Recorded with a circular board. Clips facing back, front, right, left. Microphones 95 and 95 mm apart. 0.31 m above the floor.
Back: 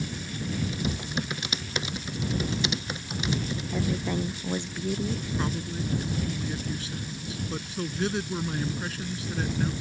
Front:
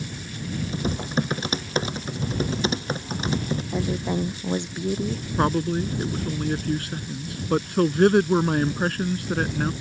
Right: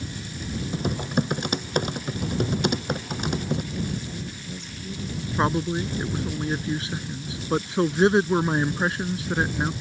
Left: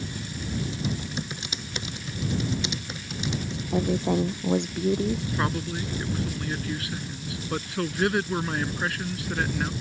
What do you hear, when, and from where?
0.7 s typing on a keyboard: 55° right
3.7 s a woman speaking: 70° left
5.4 s a man speaking: 30° right